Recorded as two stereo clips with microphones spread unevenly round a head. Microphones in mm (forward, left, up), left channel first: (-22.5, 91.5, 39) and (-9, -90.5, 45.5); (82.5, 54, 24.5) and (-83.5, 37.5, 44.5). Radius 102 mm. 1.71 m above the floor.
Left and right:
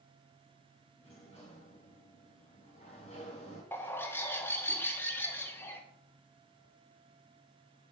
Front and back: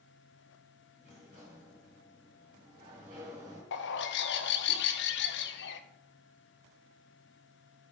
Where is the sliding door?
150° left, 4 m.